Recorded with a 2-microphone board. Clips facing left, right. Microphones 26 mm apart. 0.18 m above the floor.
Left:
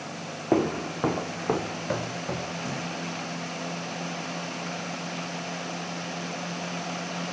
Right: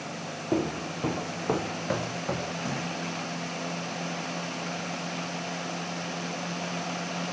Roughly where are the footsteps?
Left.